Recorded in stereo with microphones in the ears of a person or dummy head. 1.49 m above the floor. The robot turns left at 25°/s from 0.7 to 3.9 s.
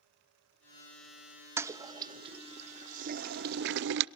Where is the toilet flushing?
15° right (ahead or behind), 0.7 m; by 4.0 s 65° right (ahead or behind), 0.7 m.